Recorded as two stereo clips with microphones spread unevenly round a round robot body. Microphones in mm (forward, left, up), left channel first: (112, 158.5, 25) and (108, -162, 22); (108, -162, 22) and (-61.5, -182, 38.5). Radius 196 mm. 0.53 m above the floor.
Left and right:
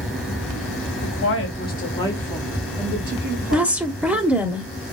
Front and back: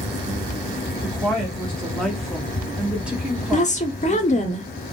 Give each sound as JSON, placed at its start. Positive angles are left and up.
{"t": 1.0, "sound": "a woman speaking", "azimuth_deg": 80, "distance_m": 1.2}
{"t": 3.5, "sound": "a woman speaking", "azimuth_deg": -5, "distance_m": 0.9}